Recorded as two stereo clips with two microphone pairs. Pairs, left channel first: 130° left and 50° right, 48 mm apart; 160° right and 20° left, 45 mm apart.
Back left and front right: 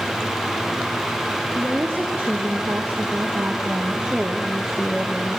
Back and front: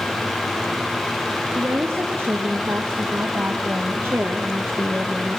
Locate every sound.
1.6 s a woman speaking: 5° left, 5.5 m; by 5.4 s 70° left, 1.5 m